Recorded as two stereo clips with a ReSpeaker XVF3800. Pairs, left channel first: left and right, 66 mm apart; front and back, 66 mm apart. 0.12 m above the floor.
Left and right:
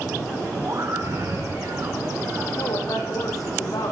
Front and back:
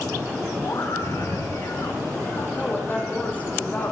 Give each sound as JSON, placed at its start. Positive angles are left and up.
{"t": 0.6, "sound": "a scream", "azimuth_deg": -40, "distance_m": 9.0}
{"t": 2.5, "sound": "a woman speaking", "azimuth_deg": 65, "distance_m": 8.5}